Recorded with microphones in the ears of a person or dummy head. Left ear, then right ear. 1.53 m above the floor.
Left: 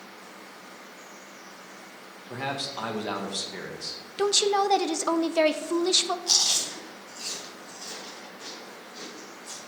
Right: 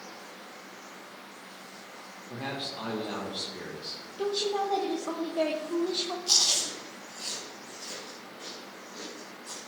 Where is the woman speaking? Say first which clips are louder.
Left 7 dB; 70° left (ahead or behind), 1.0 m.